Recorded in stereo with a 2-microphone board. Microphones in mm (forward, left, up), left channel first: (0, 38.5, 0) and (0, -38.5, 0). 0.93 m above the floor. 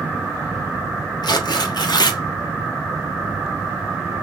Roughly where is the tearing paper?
Left.